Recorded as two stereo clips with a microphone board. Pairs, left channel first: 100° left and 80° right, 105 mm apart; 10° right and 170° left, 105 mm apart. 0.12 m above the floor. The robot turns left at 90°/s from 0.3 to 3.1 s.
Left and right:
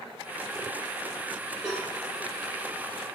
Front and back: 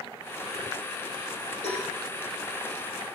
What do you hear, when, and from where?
1.6 s a cowbell: 5° right, 8 m; by 1.9 s 25° right, 8 m